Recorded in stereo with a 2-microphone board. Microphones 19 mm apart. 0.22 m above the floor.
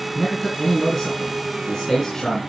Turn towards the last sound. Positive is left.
turn(degrees=30)  # may be behind; listen again after turning